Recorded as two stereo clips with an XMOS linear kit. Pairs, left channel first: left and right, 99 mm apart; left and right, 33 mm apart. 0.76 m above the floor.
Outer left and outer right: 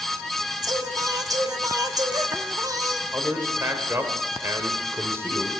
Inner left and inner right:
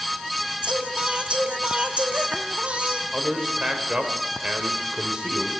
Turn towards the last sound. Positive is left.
turn(degrees=-25)  # may be behind; listen again after turning